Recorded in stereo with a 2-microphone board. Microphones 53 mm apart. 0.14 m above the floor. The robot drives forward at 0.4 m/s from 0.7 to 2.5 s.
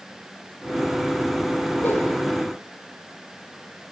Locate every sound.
1.8 s a whoosh: 45° left (ahead or behind), 2 m